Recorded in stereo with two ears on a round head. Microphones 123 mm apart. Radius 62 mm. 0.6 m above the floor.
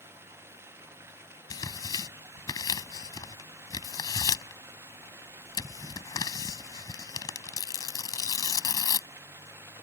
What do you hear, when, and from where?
0.0 s running water: 15° right (ahead or behind)
1.5 s tearing paper: 25° left (ahead or behind)